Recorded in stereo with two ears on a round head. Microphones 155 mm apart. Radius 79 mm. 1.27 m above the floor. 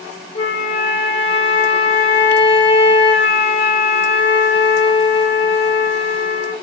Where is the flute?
35° left (ahead or behind), 0.5 m.